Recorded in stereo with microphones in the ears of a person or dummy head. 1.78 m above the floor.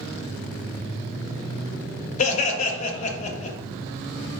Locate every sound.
2.2 s laughter: 40° left (ahead or behind), 0.6 m